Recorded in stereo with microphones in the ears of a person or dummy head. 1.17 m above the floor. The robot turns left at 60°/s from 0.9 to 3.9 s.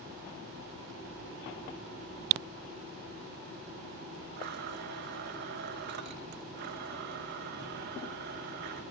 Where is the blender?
55° right (ahead or behind), 0.7 m.